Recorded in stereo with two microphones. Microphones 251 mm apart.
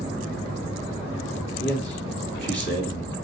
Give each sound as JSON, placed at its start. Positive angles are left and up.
{"t": 1.6, "sound": "a man speaking", "side_deg": 45, "distance_m": 2.0}